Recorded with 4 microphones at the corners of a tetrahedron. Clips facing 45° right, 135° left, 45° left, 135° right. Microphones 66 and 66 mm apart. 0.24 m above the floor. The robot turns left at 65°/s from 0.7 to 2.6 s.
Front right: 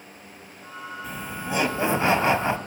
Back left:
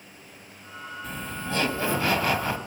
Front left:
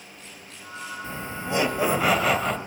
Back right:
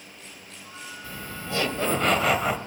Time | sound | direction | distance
1.0 | laughter | 40° left | 1.0 m